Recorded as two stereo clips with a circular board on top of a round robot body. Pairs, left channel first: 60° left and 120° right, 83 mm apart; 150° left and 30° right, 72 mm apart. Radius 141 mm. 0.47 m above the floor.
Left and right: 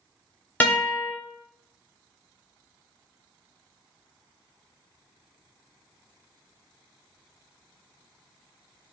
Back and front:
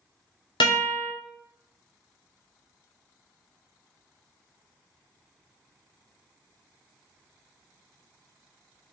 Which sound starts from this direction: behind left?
A guitar, at 0.6 s.